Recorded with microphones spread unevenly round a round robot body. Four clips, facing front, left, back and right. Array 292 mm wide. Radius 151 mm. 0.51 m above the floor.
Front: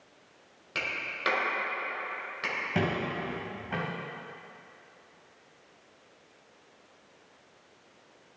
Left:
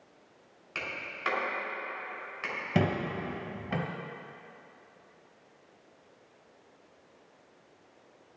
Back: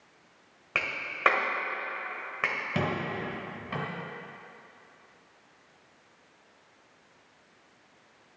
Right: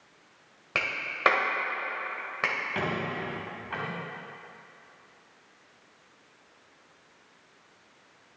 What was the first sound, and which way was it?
A clap, 120° right.